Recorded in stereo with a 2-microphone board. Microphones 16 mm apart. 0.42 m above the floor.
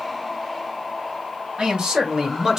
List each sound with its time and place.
1.6 s a man speaking: 60° right (ahead or behind), 1.6 m; by 2.6 s 35° right (ahead or behind), 1.0 m